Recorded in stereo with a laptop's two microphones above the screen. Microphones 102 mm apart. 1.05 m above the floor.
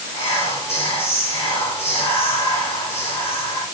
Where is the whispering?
80° left, 5 m.